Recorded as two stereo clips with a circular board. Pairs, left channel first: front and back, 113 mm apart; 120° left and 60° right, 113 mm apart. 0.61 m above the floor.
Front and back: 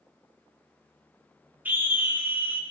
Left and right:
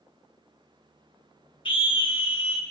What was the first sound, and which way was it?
A scream, 110° left.